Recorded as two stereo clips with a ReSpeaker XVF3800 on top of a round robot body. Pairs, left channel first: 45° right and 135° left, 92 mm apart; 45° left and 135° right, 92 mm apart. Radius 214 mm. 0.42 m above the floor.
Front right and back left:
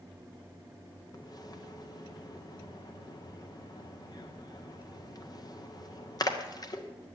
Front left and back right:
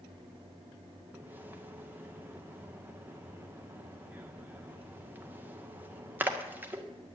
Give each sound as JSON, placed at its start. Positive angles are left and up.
{"t": 1.1, "sound": "a splash", "azimuth_deg": -70, "distance_m": 1.9}